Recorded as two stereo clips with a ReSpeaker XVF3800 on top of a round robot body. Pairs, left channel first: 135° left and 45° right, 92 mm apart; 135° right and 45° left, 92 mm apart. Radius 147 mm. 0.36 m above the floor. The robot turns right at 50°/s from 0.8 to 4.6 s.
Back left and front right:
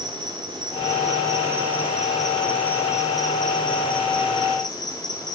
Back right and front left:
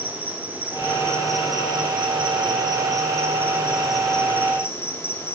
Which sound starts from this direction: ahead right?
An insect, at 0.0 s.